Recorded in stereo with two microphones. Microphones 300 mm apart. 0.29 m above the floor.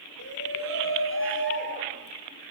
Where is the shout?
55° left (ahead or behind), 4.5 m; by 2.2 s 35° left (ahead or behind), 6.5 m.